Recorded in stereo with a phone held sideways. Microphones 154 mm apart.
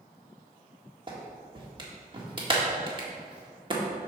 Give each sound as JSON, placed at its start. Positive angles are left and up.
{"t": 1.1, "sound": "a clap", "side_deg": -35, "distance_m": 1.6}